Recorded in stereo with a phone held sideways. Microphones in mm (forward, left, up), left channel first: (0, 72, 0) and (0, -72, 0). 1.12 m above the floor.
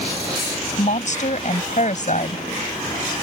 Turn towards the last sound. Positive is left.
turn(degrees=60)  # may be behind; listen again after turning